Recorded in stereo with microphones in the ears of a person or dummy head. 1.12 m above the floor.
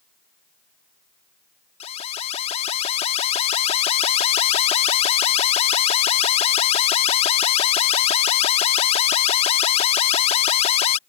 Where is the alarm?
35° left (ahead or behind).